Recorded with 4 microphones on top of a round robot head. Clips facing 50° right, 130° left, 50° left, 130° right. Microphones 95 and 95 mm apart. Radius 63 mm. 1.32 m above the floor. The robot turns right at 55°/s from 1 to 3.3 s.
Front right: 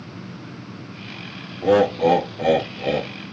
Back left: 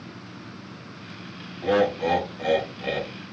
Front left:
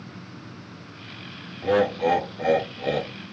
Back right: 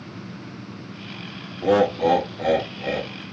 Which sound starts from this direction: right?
Laughter, at 1.6 s.